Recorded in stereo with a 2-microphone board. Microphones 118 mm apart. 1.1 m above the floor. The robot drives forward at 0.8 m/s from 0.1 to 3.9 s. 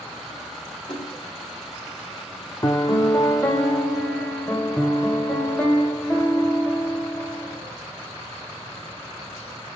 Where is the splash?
45° left (ahead or behind), 3 m; by 1.3 s 40° left (ahead or behind), 3.5 m.